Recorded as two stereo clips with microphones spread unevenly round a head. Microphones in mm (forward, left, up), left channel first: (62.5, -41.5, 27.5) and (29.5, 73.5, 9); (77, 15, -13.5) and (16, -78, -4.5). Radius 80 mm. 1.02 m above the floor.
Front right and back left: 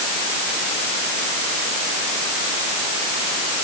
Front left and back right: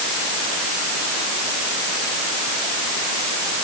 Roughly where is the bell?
No bell in this recording.